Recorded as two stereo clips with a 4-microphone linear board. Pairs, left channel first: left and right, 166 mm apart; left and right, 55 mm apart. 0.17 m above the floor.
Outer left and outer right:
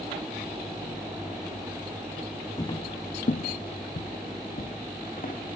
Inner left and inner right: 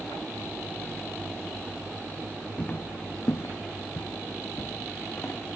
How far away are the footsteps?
About 0.6 m.